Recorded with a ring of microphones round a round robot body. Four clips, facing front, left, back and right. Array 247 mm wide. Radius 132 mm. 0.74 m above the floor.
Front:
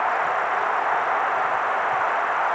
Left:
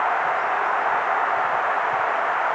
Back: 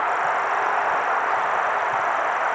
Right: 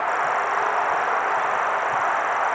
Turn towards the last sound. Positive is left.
No sound to turn to.